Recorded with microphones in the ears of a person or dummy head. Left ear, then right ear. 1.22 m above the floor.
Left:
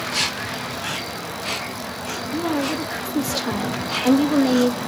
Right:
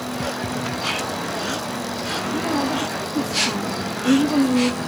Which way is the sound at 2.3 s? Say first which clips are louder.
Left 1 dB; 30° left (ahead or behind).